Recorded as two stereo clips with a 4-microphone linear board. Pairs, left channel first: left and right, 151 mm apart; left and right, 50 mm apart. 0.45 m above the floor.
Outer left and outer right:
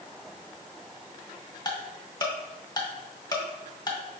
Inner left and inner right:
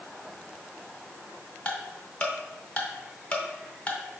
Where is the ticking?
25° left (ahead or behind), 0.7 m.